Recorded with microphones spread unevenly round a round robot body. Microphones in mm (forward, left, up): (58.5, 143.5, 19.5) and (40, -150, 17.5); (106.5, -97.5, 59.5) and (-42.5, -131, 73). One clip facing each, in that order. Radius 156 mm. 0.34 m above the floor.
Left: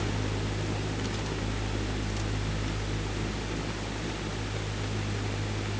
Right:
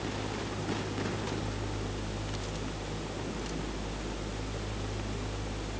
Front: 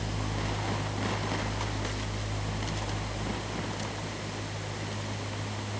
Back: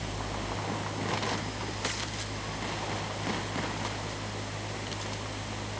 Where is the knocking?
No knocking in this recording.